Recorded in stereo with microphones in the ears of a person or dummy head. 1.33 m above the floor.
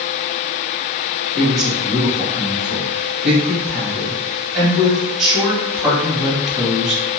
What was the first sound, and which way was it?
A woman speaking, centre (ahead or behind).